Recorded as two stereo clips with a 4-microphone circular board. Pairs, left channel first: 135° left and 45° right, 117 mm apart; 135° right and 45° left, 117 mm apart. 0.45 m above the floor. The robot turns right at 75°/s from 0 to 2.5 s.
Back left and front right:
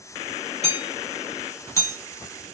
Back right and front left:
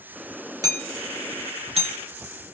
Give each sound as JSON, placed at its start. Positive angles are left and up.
{"t": 0.6, "sound": "hammering", "azimuth_deg": -15, "distance_m": 1.5}